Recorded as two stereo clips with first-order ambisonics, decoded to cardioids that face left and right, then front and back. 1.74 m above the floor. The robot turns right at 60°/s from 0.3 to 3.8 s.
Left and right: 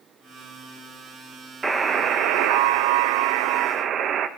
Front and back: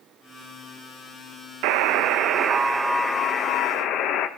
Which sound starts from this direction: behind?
A buzzer, at 1.6 s.